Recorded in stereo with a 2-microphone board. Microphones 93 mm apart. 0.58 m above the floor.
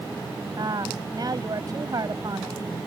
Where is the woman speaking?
45° right (ahead or behind).